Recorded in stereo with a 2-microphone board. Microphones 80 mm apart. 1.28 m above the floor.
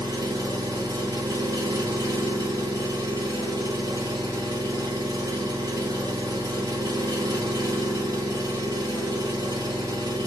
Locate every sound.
0.0 s an engine running: 50° right (ahead or behind), 1.4 m